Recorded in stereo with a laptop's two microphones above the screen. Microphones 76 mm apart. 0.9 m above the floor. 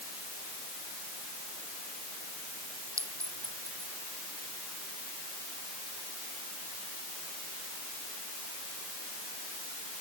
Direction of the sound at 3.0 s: 45° right (ahead or behind).